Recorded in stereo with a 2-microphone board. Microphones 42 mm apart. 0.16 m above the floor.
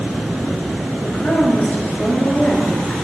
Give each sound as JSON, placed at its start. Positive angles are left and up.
{"t": 1.0, "sound": "a woman speaking", "side_deg": 40, "distance_m": 2.5}